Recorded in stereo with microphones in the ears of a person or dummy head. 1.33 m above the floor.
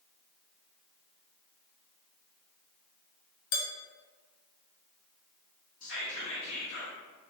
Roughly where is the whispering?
Left.